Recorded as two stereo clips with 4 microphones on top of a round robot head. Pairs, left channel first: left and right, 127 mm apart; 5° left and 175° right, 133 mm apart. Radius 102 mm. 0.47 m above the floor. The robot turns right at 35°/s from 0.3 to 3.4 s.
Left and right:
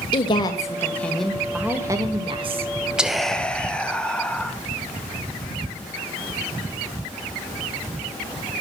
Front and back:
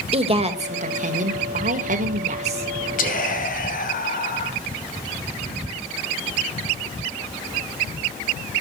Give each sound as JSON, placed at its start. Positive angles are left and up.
{"t": 0.1, "sound": "a woman speaking", "azimuth_deg": 145, "distance_m": 1.9}
{"t": 3.0, "sound": "whispering", "azimuth_deg": -5, "distance_m": 2.5}